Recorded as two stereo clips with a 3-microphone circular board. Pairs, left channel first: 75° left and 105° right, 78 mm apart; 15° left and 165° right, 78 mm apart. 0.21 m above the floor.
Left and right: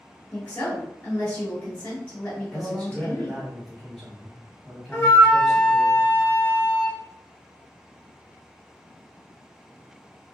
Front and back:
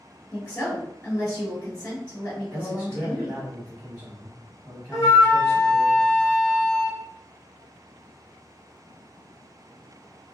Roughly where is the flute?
Ahead left.